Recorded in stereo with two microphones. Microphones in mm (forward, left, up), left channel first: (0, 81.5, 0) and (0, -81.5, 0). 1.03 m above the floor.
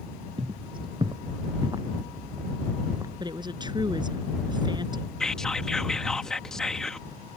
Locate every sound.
0.4 s footsteps: 35° right (ahead or behind); by 3.1 s 20° right (ahead or behind)
3.2 s a woman speaking: 25° right (ahead or behind)
5.2 s whispering: 5° left (ahead or behind)